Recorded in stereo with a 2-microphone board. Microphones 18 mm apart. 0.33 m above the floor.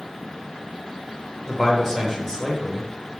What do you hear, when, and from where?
1.5 s a man speaking: 20° left (ahead or behind), 0.8 m